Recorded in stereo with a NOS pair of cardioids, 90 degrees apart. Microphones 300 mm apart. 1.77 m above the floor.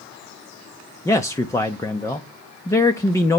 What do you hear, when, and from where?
1.1 s a man speaking: 10° left, 0.6 m